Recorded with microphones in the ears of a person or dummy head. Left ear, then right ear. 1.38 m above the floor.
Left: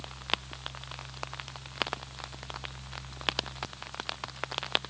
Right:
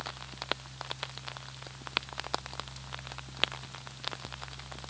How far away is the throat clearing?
No throat clearing in this recording.